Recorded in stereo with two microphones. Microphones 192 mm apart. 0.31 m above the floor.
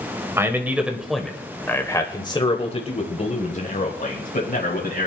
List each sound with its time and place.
0.4 s a man speaking: 15° right (ahead or behind), 1.6 m; by 5.1 s 50° left (ahead or behind), 2.5 m